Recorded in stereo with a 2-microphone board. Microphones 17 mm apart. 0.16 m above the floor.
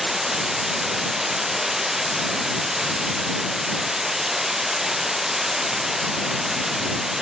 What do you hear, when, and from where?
0.0 s running water: 20° right (ahead or behind)